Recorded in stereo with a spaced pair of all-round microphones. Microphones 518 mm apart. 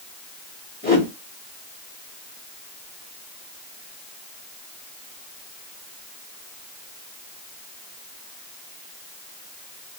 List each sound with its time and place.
0.8 s a whoosh: 15° left (ahead or behind), 1.3 m